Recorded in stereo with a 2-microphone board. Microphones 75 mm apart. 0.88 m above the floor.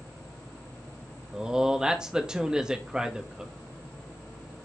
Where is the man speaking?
10° right (ahead or behind), 1.0 m.